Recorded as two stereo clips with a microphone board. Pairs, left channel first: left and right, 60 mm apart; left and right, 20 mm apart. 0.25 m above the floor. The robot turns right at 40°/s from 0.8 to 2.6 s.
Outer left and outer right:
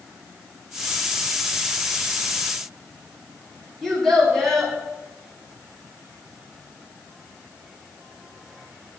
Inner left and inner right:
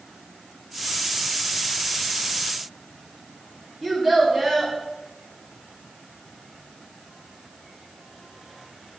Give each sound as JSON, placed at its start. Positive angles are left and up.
{"t": 3.8, "sound": "a child speaking", "side_deg": 5, "distance_m": 1.9}